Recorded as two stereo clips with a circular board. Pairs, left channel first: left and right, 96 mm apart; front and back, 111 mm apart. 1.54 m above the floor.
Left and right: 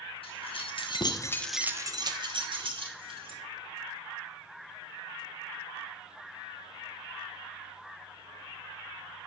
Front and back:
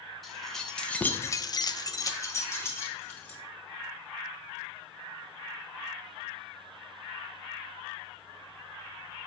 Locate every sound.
0.2 s keys jangling: 90° left, 1.6 m; by 3.4 s 70° right, 2.5 m